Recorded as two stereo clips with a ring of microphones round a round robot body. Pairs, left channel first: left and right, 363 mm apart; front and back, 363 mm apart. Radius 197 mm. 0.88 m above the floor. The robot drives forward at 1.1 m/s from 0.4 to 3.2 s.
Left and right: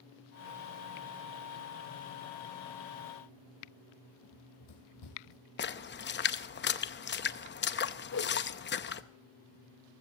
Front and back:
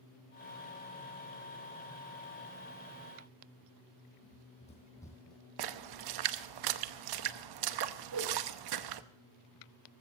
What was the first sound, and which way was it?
Running footsteps, 60° left.